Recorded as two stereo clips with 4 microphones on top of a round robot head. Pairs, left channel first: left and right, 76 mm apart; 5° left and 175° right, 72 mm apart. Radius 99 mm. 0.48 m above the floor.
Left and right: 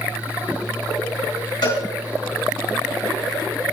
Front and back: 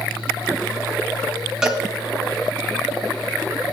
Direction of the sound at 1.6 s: 105° left.